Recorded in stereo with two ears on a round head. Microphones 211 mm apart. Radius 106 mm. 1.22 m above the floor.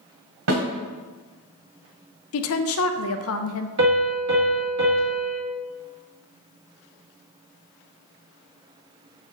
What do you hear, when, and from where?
0.5 s a snare drum: 65° right (ahead or behind), 2 m
2.3 s a woman speaking: 65° left (ahead or behind), 0.6 m
3.8 s a piano: 55° right (ahead or behind), 2.0 m